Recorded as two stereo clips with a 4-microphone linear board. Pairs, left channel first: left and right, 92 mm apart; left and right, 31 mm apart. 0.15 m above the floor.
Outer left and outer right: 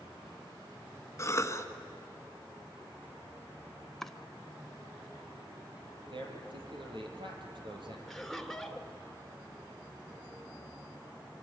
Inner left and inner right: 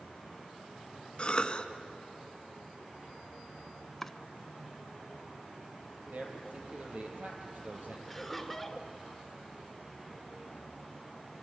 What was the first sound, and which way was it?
A cough, 30° left (ahead or behind).